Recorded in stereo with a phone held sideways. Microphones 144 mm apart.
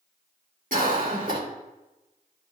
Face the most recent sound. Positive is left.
turn(degrees=-70)  # may be behind; listen again after turning